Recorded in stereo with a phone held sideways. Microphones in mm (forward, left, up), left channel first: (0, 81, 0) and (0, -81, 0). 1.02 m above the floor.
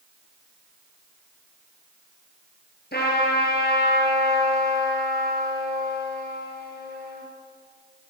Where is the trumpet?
85° left, 8 m.